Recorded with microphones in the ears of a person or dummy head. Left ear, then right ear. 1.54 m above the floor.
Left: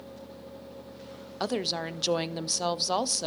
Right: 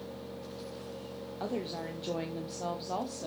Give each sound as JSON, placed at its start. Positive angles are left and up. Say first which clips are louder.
{"t": 1.4, "sound": "a woman speaking", "louder": "left 7 dB", "side_deg": 60, "distance_m": 0.5}